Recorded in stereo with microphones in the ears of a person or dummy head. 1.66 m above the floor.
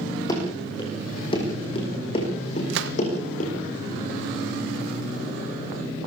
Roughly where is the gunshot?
Right.